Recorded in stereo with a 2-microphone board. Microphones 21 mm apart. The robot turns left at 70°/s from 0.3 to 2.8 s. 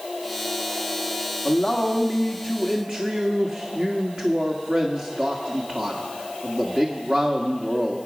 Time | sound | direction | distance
1.4 | a man speaking | 45° left | 1.5 m